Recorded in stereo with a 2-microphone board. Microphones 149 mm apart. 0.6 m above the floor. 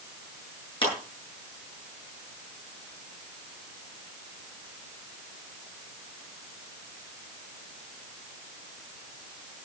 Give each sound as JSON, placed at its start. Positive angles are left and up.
{"t": 0.8, "sound": "a clap", "side_deg": 35, "distance_m": 8.5}